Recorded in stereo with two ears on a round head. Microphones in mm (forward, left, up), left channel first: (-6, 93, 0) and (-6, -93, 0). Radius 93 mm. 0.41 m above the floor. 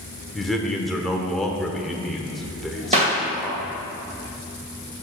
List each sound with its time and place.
0.3 s a man speaking: centre (ahead or behind), 0.8 m
2.9 s a clap: 35° right (ahead or behind), 1.8 m